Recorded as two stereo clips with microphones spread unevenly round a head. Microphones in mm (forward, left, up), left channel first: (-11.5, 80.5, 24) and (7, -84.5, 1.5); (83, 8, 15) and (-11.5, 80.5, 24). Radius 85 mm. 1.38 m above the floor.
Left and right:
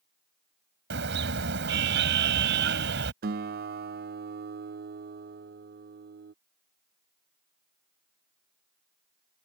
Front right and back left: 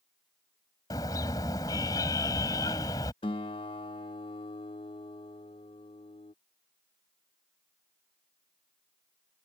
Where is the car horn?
110° right.